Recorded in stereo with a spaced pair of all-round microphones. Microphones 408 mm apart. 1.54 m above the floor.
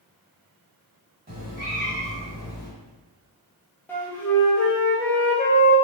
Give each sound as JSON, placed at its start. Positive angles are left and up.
{"t": 1.3, "sound": "a cat meowing", "side_deg": -25, "distance_m": 1.6}
{"t": 3.9, "sound": "a flute", "side_deg": 5, "distance_m": 1.0}